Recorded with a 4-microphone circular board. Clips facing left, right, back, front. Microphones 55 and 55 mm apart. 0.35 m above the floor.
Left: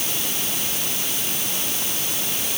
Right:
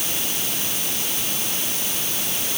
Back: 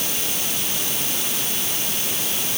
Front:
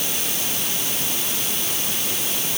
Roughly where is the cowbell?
No cowbell in this recording.